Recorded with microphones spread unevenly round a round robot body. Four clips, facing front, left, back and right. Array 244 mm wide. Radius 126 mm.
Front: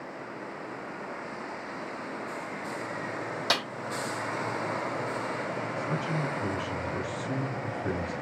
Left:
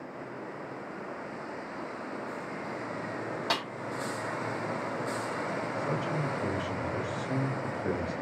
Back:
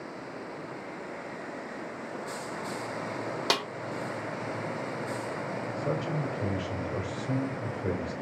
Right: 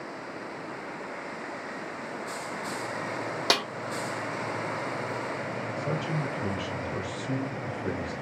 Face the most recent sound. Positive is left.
turn(degrees=-150)